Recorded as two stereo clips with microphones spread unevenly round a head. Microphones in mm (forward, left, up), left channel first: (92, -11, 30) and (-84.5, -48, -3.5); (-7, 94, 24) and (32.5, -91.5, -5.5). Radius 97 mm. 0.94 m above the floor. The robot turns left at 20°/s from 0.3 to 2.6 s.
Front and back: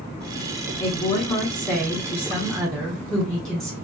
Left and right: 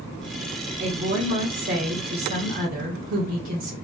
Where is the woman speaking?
50° right, 1.2 m; by 3.7 s 85° right, 1.2 m.